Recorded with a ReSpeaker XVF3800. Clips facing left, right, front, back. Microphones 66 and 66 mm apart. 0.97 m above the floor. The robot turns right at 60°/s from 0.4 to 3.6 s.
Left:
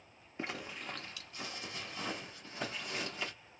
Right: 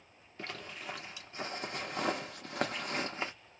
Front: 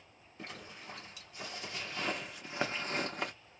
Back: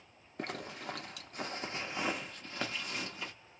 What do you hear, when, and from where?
0.4 s a zipper: 160° left, 0.9 m; by 3.3 s 25° right, 0.9 m